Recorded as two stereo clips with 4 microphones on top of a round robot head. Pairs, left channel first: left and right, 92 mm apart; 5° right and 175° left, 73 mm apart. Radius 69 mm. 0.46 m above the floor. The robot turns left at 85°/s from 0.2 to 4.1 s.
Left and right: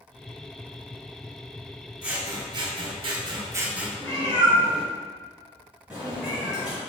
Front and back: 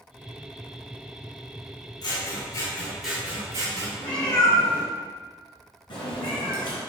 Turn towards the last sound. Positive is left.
turn(degrees=-5)